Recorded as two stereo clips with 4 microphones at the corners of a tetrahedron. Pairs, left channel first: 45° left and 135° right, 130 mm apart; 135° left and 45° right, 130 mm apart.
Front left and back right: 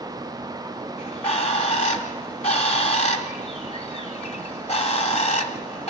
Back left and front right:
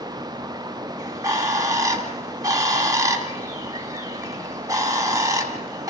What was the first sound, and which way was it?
A bird, 15° left.